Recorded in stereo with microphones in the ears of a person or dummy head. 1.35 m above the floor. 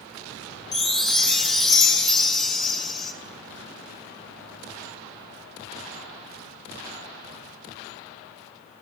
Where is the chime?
Centre (ahead or behind), 0.7 m.